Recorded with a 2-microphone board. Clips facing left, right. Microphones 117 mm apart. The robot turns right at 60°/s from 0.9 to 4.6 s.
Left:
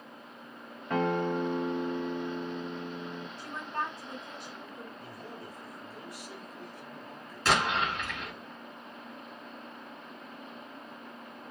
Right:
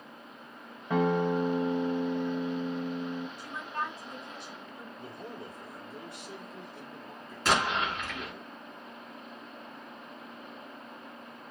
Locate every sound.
0.9 s a guitar: 175° right, 0.6 m; by 3.3 s 30° right, 0.6 m
3.4 s a woman speaking: 40° left, 1.5 m; by 4.9 s 115° left, 1.5 m
5.0 s a man speaking: 25° right (ahead or behind), 0.9 m
7.5 s an explosion: centre (ahead or behind), 1.4 m